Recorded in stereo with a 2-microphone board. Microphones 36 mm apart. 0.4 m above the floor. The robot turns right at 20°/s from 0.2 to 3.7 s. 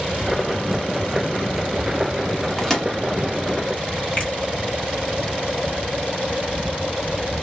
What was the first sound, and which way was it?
A microwave, 10° left (ahead or behind).